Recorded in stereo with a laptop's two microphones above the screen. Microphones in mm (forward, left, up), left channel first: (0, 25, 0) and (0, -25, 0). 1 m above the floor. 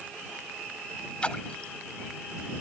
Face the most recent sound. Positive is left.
turn(degrees=20)  # may be behind; listen again after turning